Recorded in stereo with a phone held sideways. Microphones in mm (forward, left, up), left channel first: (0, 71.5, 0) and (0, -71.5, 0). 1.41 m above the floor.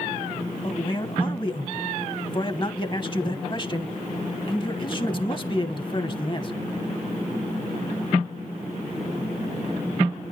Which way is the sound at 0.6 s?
35° left (ahead or behind).